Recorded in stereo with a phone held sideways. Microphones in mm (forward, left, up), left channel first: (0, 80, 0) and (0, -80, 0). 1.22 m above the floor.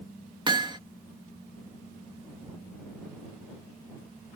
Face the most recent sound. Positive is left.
turn(degrees=-30)  # may be behind; listen again after turning